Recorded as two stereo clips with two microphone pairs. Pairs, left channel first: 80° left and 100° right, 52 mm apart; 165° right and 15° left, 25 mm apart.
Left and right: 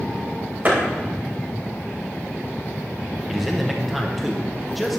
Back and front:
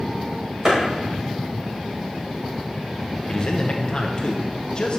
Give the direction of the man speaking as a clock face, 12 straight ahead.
6 o'clock.